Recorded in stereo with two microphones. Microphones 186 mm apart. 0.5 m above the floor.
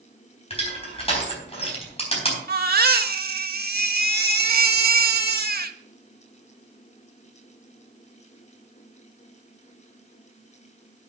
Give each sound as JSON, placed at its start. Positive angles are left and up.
{"t": 0.5, "sound": "crushing", "side_deg": 30, "distance_m": 4.0}
{"t": 2.5, "sound": "a baby crying", "side_deg": -55, "distance_m": 0.8}